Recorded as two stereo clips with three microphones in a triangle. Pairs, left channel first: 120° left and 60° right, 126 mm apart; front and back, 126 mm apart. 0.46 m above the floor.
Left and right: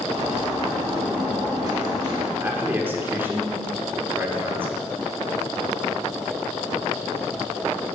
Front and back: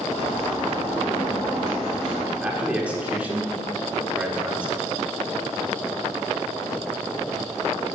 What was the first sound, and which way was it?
A bird, 5° right.